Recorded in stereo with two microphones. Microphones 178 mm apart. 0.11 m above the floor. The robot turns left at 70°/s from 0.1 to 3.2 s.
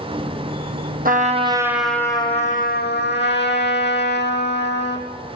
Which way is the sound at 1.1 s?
125° right.